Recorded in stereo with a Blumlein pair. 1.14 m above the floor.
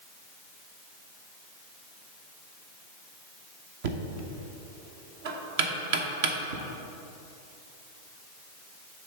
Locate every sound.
3.8 s knocking: 50° right, 0.8 m